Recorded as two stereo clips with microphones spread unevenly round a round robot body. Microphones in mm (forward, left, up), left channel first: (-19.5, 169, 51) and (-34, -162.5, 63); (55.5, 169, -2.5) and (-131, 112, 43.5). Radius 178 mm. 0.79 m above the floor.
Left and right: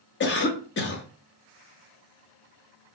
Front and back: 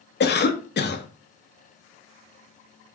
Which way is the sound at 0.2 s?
30° left.